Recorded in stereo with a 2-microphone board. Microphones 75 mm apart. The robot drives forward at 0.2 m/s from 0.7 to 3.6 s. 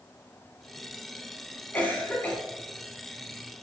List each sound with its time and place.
1.7 s a cough: 25° left (ahead or behind), 1.1 m